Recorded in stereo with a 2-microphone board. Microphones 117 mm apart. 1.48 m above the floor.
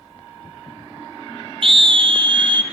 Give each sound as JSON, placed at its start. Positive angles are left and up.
{"t": 1.6, "sound": "a scream", "side_deg": -50, "distance_m": 0.8}